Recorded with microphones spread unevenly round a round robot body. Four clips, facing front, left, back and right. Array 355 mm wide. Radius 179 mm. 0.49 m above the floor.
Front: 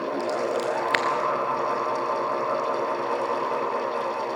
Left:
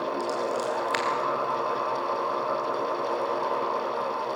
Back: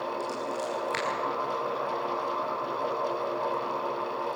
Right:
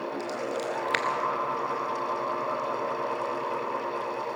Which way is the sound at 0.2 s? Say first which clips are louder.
Left 4 dB, front 7 dB; 45° right.